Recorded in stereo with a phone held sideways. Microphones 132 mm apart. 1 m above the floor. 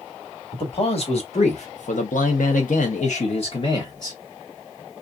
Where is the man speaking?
45° left (ahead or behind), 1.5 m; by 4.2 s 30° left (ahead or behind), 1.1 m.